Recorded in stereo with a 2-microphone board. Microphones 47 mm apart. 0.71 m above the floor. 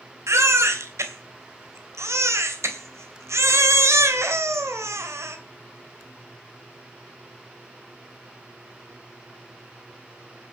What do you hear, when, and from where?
0.3 s a baby crying: 80° right, 2.5 m